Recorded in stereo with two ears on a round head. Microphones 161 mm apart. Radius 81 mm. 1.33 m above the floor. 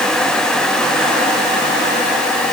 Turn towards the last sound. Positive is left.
No sound to turn to.